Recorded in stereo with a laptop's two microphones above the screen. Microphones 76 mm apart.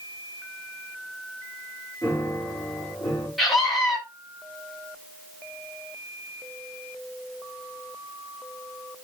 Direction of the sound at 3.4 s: 5° left (ahead or behind).